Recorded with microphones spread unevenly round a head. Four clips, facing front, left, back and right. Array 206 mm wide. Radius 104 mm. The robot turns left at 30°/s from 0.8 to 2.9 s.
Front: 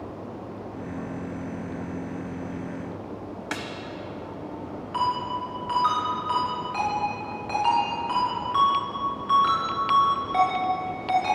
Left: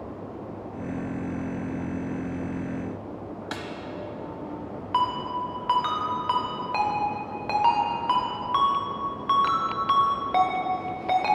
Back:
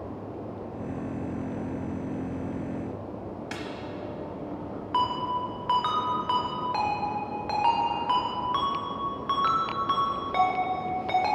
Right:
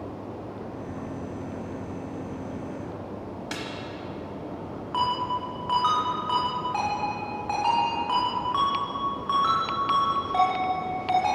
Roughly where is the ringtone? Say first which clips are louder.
Left 1 dB, even; behind left.